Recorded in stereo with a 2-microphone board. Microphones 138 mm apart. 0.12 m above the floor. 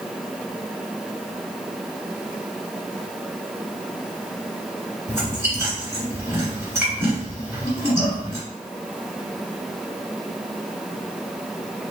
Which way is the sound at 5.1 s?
20° right (ahead or behind).